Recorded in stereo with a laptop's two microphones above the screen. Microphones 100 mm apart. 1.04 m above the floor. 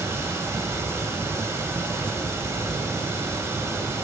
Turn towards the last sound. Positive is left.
turn(degrees=-30)  # may be behind; listen again after turning